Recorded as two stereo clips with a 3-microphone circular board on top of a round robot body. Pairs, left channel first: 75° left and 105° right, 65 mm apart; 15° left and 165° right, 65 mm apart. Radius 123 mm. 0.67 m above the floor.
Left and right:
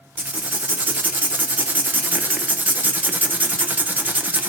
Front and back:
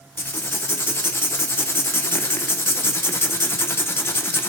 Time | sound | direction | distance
0.2 | writing | 40° right | 1.0 m